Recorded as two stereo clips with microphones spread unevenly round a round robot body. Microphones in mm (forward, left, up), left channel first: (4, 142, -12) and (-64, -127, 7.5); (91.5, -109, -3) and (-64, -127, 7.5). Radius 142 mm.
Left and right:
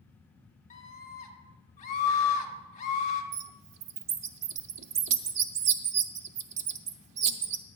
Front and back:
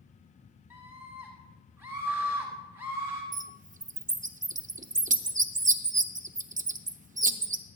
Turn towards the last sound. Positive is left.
turn(degrees=-125)